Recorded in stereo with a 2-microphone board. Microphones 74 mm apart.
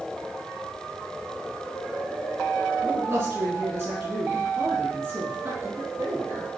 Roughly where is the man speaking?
Right.